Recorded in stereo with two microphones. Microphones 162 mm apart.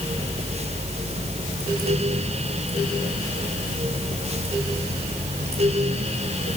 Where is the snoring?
I don't hear snoring.